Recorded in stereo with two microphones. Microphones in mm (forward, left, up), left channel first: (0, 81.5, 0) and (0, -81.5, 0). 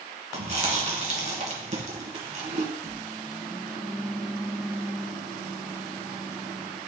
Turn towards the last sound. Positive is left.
turn(degrees=-5)  # may be behind; listen again after turning